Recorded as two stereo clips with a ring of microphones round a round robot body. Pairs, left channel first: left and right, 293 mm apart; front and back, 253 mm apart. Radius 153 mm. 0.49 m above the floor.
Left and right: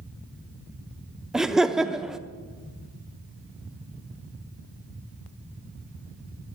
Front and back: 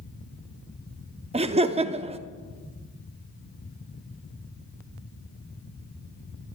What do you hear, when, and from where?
1.3 s laughter: 175° right, 0.7 m